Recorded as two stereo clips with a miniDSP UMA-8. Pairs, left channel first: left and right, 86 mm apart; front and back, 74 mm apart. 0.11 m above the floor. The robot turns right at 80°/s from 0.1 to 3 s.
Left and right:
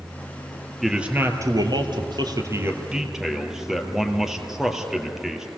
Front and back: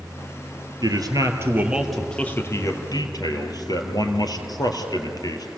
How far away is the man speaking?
About 3 m.